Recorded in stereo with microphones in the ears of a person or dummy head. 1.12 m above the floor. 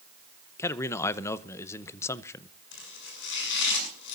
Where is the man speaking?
15° left (ahead or behind), 0.6 m.